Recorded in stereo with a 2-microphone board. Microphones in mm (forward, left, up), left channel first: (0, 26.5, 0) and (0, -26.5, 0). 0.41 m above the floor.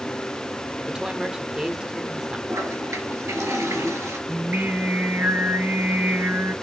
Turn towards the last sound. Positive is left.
turn(degrees=-40)  # may be behind; listen again after turning